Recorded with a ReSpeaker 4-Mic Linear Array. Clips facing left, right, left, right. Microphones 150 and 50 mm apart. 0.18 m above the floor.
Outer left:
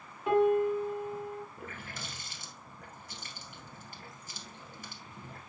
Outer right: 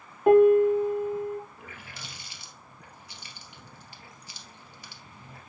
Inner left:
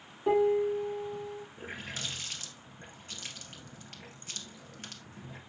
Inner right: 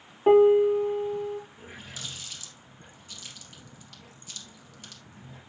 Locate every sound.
0.3 s a piano: 55° right (ahead or behind), 1.2 m
1.6 s a running tap: 50° left (ahead or behind), 2 m